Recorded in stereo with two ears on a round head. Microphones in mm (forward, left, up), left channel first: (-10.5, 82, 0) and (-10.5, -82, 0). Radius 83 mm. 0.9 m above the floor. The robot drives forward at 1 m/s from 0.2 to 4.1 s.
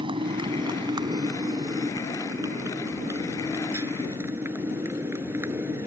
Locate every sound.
0.0 s a motorcycle: 30° right (ahead or behind); by 5.9 s 15° right (ahead or behind)